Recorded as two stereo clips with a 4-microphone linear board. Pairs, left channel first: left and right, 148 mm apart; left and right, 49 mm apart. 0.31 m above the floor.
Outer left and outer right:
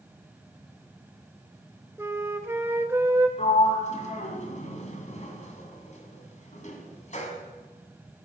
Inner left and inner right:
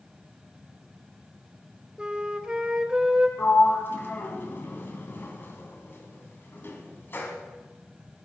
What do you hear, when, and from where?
2.0 s a flute: 15° right (ahead or behind), 1.2 m
3.4 s a sliding door: 50° left (ahead or behind), 2 m